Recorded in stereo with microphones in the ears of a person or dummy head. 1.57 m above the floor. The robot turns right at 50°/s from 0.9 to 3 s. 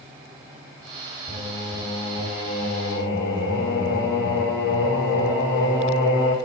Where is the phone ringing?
No phone ringing in this recording.